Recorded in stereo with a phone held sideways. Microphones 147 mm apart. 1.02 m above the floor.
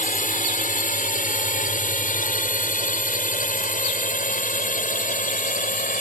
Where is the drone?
65° left (ahead or behind).